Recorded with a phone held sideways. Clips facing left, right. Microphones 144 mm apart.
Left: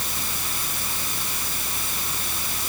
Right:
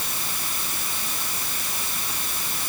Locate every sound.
0.0 s a fan: 80° left